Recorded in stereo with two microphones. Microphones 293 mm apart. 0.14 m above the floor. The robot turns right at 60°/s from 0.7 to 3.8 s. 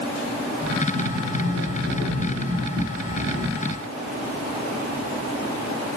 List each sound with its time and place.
0.9 s a sliding door: 40° left, 2.5 m; by 3.6 s 155° right, 2.5 m